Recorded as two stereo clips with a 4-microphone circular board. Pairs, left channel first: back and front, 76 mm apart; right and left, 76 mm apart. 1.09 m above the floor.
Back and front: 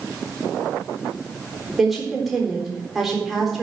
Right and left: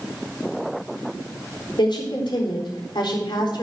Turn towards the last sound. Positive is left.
turn(degrees=-85)